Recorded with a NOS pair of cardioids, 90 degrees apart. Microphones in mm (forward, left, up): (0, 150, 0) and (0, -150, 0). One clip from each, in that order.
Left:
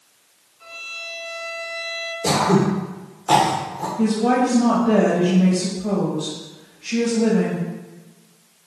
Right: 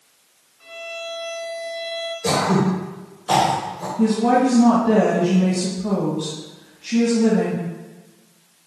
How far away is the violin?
About 2 m.